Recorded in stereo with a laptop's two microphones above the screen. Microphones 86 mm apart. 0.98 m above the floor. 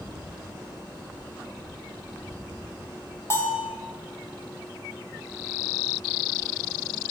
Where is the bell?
30° left (ahead or behind), 2 m.